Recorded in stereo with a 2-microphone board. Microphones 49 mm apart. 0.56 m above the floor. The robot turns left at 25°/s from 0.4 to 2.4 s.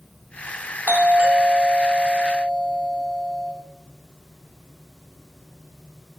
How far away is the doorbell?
About 2.5 m.